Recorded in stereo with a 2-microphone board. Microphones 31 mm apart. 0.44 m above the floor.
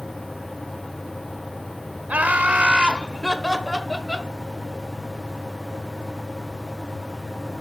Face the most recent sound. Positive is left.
turn(degrees=5)  # may be behind; listen again after turning